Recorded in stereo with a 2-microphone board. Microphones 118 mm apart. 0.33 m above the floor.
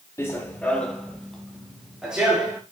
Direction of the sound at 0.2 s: 20° left (ahead or behind).